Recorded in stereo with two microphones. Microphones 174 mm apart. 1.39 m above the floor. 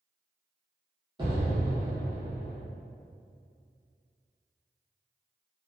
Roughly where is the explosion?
Right.